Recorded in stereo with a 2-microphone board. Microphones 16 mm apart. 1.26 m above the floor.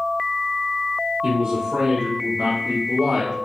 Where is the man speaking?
60° right (ahead or behind), 1.2 m; by 3.3 s 50° right (ahead or behind), 3 m.